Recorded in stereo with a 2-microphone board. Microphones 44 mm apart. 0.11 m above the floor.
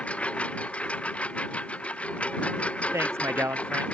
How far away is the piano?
No piano in this recording.